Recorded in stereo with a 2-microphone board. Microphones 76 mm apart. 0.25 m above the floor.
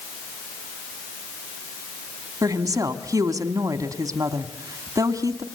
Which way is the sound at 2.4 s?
55° right (ahead or behind).